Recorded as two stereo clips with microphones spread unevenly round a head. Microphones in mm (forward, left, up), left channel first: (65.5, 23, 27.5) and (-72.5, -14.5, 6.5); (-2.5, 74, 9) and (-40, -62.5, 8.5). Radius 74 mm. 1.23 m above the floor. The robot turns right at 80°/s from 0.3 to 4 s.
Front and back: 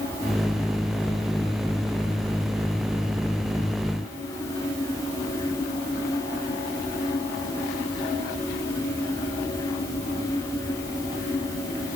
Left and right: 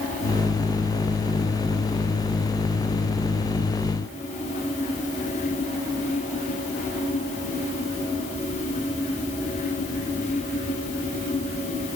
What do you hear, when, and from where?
Only background noise.